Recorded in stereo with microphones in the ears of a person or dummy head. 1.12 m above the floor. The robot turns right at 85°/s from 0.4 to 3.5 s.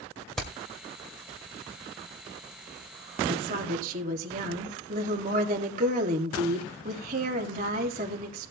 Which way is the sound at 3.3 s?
60° right (ahead or behind).